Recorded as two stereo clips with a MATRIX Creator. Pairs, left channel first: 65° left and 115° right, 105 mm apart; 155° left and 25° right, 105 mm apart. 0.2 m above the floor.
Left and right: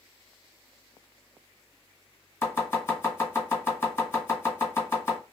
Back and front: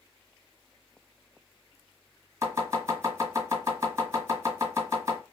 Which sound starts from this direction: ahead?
Chopping, at 2.4 s.